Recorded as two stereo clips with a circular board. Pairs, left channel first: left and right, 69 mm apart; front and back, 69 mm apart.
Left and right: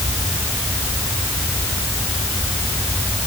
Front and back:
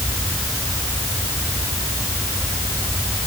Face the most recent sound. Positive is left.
No sound to turn to.